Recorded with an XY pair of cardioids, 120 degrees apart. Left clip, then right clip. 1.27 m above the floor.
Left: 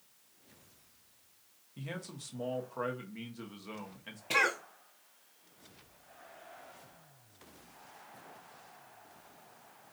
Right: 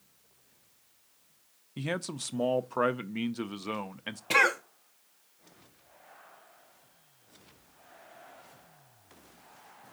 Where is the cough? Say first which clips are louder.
Right 5 dB; 35° right, 0.6 m.